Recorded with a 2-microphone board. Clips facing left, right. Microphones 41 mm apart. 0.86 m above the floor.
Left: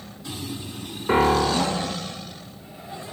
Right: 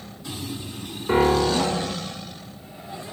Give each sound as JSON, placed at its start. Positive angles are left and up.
{"t": 1.1, "sound": "a piano", "side_deg": 20, "distance_m": 0.7}